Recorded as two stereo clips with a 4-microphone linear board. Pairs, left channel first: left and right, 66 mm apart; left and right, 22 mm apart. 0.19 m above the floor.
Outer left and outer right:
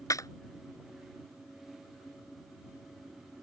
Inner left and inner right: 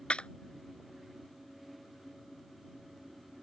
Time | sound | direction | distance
0.1 | a clap | 55° left (ahead or behind) | ?